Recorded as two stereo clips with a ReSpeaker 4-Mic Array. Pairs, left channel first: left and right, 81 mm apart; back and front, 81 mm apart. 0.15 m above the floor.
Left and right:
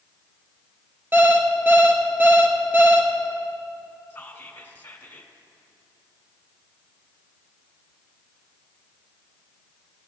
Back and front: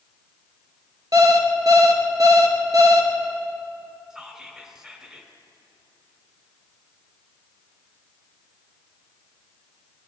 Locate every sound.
1.1 s an alarm clock: 30° right, 1.1 m
4.1 s whispering: 75° left, 1.2 m